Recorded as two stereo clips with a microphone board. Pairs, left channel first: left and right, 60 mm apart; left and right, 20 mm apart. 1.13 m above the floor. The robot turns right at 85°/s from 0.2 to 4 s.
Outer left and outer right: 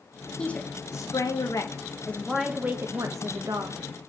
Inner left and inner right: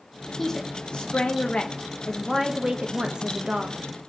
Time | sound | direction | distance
0.4 | a woman speaking | 15° left | 1.4 m